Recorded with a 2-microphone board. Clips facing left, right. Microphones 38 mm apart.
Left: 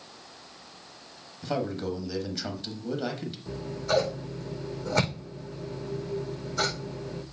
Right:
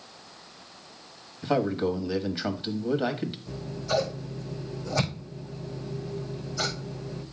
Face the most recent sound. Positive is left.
turn(degrees=50)  # may be behind; listen again after turning